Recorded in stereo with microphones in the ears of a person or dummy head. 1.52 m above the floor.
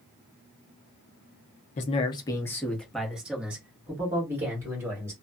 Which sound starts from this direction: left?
A man speaking, at 1.8 s.